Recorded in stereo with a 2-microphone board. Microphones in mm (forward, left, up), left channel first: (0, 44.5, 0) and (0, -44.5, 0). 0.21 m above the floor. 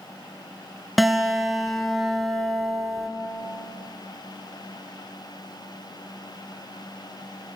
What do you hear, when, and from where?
1.0 s a guitar: centre (ahead or behind), 1.1 m